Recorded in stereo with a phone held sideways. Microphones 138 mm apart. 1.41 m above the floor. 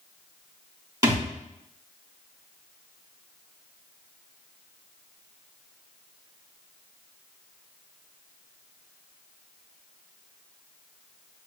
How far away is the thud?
About 1.3 m.